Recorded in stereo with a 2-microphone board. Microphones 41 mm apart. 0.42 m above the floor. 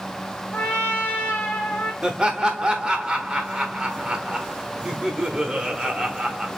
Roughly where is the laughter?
Centre.